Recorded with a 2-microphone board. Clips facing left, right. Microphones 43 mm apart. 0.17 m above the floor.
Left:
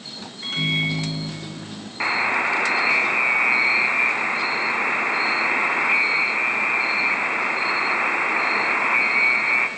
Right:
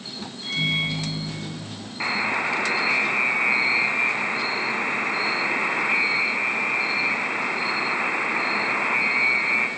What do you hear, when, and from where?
0.4 s a microwave: 40° left (ahead or behind), 1.8 m
2.0 s a buzzer: 15° left (ahead or behind), 0.6 m